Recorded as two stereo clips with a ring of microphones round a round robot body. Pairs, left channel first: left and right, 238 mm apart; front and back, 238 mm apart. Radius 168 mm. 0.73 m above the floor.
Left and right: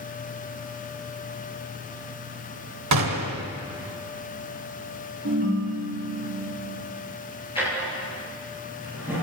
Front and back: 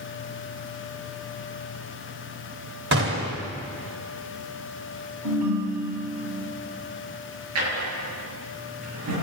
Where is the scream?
I don't hear a scream.